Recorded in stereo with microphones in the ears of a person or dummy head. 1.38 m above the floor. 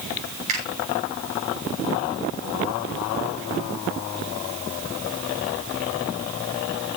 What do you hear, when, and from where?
0.5 s a finger snap: 35° right (ahead or behind), 7 m